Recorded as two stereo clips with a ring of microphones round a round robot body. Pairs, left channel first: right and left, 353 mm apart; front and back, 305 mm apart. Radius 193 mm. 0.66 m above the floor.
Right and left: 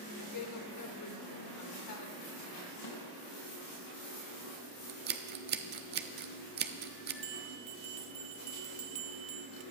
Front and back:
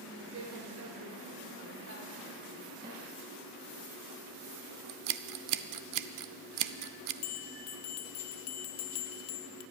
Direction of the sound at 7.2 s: 20° left.